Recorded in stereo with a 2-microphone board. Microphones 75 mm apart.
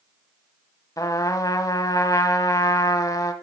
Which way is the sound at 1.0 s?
50° left (ahead or behind).